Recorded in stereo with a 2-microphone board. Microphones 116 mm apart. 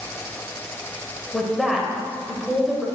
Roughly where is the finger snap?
No finger snap in this recording.